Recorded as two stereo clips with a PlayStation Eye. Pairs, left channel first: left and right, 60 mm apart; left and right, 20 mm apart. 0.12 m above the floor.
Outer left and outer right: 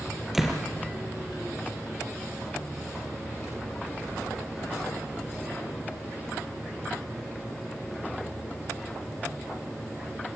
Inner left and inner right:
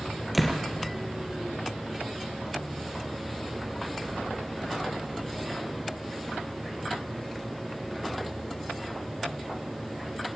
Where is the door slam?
5° right (ahead or behind), 2.5 m.